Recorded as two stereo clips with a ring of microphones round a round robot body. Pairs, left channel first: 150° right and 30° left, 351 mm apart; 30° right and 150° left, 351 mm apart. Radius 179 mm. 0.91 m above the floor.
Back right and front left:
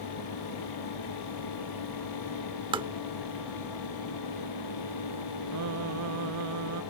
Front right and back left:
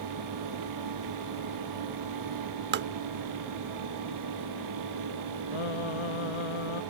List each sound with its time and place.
2.7 s tapping: 100° left
5.5 s singing: 20° right